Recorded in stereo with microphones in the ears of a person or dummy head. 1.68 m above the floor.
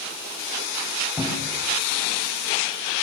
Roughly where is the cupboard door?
Centre.